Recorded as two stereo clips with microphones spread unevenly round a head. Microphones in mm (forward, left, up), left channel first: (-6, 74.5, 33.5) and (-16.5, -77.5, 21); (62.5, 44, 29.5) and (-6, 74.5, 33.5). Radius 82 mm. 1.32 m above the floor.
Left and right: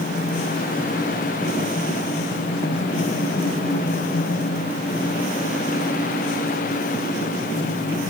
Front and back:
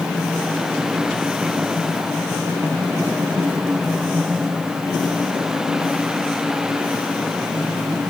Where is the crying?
No crying in this recording.